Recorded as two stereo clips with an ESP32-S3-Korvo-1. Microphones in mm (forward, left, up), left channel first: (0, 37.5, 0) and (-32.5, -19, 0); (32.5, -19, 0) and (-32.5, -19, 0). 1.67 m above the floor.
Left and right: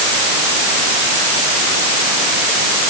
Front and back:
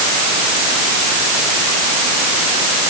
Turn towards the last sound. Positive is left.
No sound to turn to.